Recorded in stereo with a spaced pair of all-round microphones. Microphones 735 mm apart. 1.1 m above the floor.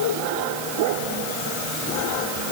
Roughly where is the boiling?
I don't hear boiling.